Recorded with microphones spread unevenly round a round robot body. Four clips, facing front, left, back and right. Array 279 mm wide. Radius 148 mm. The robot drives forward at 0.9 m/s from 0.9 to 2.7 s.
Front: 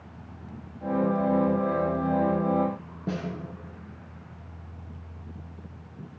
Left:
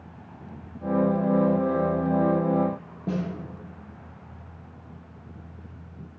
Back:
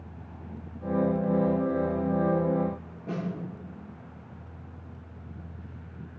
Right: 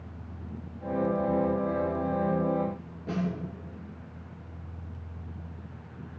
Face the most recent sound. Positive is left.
turn(degrees=45)